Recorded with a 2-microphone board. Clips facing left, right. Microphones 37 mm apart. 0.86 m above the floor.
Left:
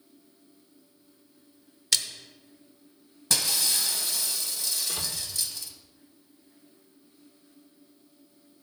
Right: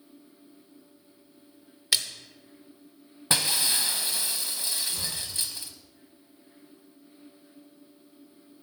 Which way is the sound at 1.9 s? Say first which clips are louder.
Right 1 dB; 15° right (ahead or behind).